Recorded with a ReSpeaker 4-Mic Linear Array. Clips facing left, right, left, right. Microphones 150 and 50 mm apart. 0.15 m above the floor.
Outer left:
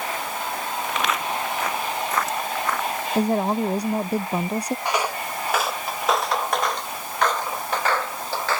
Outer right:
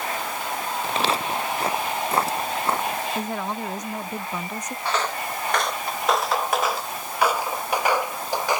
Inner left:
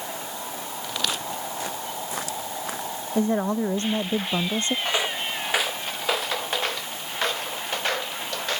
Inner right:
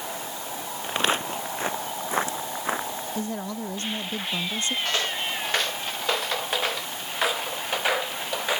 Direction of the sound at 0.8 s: 30° right (ahead or behind).